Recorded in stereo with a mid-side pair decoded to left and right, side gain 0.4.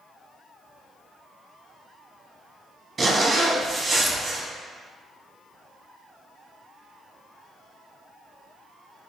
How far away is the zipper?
About 1.0 m.